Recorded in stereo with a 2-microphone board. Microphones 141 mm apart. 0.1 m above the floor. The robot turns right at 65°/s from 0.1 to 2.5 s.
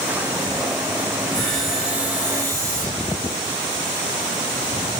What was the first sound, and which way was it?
Sawing, 5° left (ahead or behind).